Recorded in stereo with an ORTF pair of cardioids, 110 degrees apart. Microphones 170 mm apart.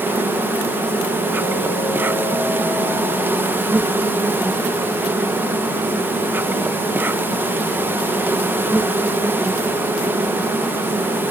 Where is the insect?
10° right.